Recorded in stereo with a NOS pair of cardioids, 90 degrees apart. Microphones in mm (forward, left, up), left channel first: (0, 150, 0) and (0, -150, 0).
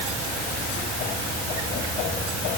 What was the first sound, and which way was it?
Only background noise.